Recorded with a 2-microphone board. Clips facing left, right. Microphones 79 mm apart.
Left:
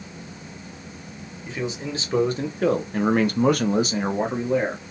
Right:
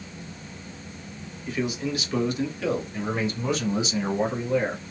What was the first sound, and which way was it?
A man speaking, 25° left (ahead or behind).